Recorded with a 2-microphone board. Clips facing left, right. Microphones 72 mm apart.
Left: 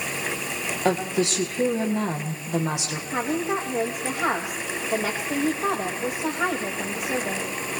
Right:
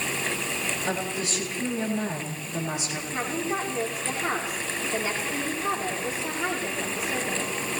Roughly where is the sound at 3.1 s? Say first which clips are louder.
Left 4 dB; left.